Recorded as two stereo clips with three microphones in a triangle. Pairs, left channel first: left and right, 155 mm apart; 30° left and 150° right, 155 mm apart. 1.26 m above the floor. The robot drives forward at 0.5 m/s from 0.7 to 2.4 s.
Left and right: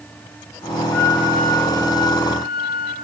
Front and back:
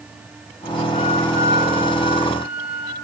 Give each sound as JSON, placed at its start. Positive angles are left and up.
{"t": 0.9, "sound": "a flute", "azimuth_deg": 165, "distance_m": 1.2}